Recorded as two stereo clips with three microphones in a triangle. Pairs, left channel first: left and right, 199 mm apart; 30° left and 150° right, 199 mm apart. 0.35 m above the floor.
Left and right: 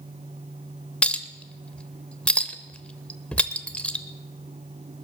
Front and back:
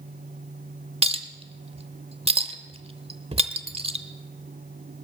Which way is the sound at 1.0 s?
170° left.